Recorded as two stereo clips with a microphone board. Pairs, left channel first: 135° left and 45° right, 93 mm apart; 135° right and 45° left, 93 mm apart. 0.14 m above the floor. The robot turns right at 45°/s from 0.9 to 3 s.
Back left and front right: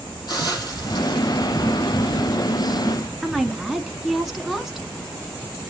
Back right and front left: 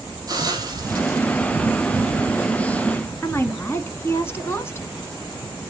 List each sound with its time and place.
0.3 s a hiss: 95° left, 3.5 m; by 2.2 s 150° left, 3.5 m
3.2 s a woman speaking: 125° right, 1.1 m